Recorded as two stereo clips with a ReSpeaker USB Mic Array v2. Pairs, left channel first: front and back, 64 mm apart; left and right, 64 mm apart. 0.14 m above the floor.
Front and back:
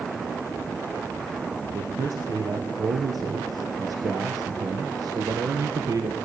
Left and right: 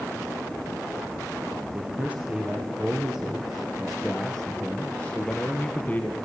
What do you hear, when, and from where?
1.7 s a man speaking: 155° right, 3 m; by 6.2 s 155° left, 3 m